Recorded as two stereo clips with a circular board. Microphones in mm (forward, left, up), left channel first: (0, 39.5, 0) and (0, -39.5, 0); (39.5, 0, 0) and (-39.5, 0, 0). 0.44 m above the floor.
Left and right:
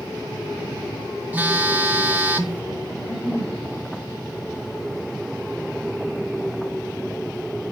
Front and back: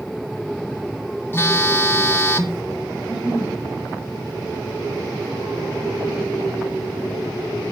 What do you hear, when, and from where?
1.3 s a phone buzzing: 35° right, 0.9 m
3.0 s a giggle: 105° left, 8 m